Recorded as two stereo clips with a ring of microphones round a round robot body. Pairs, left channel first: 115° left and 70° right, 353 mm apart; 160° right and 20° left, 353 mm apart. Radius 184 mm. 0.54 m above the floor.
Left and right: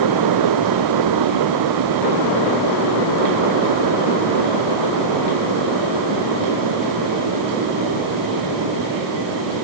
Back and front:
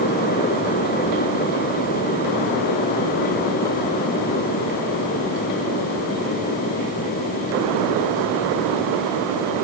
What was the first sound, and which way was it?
Only background noise.